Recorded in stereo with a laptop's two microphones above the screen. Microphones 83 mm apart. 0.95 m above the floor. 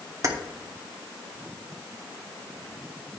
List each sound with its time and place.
0.2 s keys jangling: 40° right (ahead or behind), 1.4 m